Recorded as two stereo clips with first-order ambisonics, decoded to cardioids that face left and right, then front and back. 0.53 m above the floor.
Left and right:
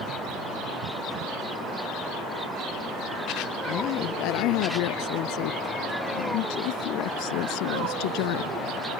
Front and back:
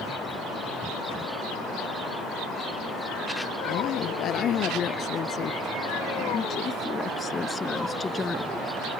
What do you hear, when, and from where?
3.7 s a woman speaking: 55° left; by 8.5 s 80° left